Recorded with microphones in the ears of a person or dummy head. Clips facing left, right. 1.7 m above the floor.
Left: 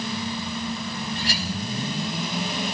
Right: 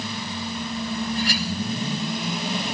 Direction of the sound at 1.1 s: 25° left (ahead or behind).